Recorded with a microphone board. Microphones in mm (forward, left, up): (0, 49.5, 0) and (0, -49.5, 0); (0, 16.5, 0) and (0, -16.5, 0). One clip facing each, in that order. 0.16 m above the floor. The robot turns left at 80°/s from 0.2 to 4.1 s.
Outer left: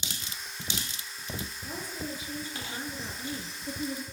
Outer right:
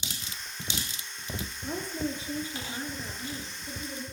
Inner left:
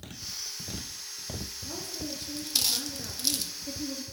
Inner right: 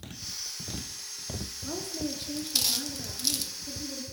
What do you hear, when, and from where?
1.6 s a woman speaking: 95° right, 2.5 m; by 4.0 s 75° left, 2.5 m